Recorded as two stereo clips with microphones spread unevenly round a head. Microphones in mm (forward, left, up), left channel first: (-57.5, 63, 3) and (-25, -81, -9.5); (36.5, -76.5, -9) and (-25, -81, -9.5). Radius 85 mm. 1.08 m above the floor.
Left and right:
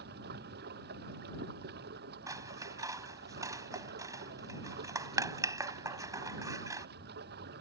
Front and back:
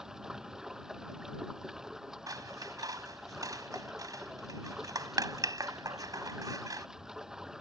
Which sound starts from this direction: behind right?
Scissors, at 2.3 s.